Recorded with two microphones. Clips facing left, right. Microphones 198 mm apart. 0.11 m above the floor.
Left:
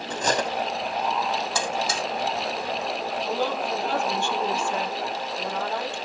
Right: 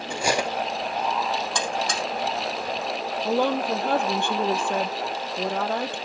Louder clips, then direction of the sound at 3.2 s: Right 6 dB; 60° right (ahead or behind).